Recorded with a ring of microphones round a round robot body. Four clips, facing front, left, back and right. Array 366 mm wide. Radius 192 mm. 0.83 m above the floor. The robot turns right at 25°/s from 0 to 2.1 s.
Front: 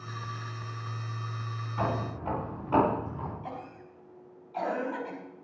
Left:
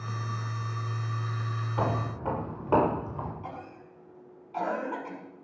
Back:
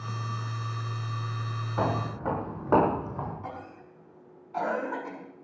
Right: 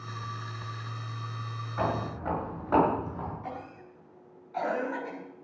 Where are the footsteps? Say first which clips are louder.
Even, back 2 dB; 155° left, 8 m; by 3.3 s 160° left, 8.5 m.